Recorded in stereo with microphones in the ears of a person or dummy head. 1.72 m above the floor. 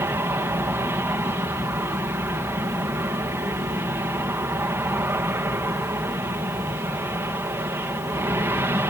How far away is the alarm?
No alarm in this recording.